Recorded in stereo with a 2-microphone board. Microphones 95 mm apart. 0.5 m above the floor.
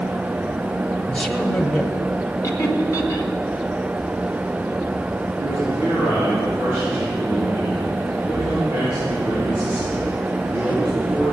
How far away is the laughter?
About 1.9 m.